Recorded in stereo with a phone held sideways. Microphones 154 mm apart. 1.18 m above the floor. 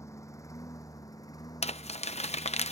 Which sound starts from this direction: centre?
A lawn mower, at 0.0 s.